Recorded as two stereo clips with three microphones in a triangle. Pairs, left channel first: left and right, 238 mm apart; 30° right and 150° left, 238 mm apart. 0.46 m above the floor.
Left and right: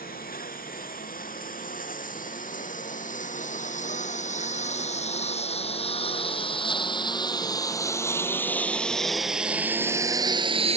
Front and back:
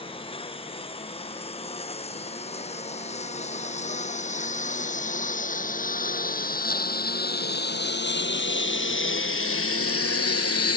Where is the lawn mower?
35° left; by 10.8 s 25° right.